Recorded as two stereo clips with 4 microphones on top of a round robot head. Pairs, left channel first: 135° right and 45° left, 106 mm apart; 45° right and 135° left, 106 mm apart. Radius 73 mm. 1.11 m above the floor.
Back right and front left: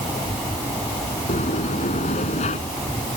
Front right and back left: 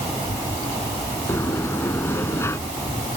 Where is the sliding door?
110° right.